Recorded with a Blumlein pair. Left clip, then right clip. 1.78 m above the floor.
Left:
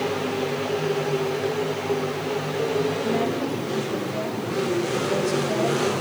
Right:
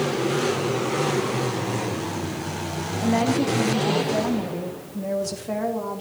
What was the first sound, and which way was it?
A woman speaking, 60° right.